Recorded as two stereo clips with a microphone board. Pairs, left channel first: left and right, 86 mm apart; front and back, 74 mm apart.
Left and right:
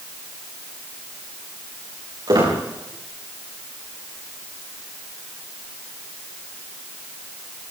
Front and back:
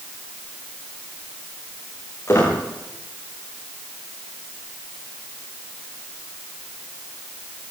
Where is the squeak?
55° right, 10 m.